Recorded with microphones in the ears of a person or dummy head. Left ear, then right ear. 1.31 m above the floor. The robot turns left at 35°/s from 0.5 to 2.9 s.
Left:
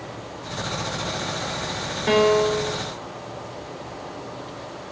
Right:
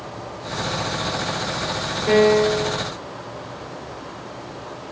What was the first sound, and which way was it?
A piano, 40° left (ahead or behind).